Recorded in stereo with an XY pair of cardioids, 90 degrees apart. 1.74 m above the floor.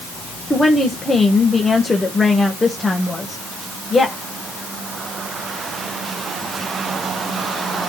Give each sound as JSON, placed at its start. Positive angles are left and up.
{"t": 0.5, "sound": "a woman speaking", "azimuth_deg": 25, "distance_m": 1.5}